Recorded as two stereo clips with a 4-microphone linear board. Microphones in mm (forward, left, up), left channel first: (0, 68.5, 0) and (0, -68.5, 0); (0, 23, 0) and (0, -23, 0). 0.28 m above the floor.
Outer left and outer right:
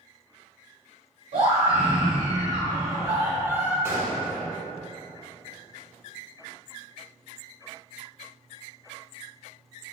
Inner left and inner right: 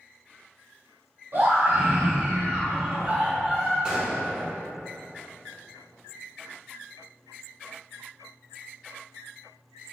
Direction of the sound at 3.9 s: 20° right (ahead or behind).